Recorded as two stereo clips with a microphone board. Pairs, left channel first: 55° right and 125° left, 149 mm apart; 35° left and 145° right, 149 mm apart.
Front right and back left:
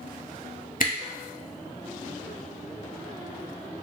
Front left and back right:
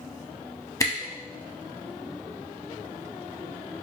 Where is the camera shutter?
35° right, 0.6 m.